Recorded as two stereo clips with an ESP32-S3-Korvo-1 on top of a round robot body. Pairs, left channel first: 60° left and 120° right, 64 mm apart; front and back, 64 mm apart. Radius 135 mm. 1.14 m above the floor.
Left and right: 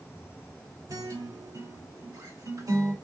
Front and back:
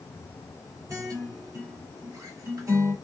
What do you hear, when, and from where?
0.9 s a guitar: 145° right, 3 m